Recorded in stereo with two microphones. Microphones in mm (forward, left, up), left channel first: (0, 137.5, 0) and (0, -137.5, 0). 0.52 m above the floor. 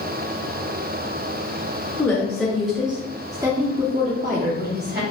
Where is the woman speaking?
10° left (ahead or behind), 1.2 m; by 5.0 s 35° right (ahead or behind), 1.1 m.